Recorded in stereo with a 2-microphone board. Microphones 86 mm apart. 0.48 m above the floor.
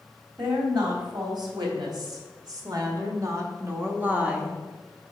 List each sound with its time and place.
0.4 s a woman speaking: 65° right (ahead or behind), 3 m; by 4.6 s 5° right (ahead or behind), 1.2 m